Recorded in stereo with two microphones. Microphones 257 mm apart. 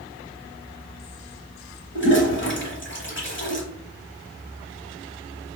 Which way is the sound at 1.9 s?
45° left (ahead or behind).